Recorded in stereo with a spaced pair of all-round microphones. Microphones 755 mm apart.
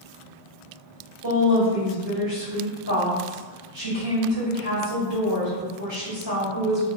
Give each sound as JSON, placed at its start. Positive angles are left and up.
{"t": 1.2, "sound": "a woman speaking", "side_deg": -35, "distance_m": 1.5}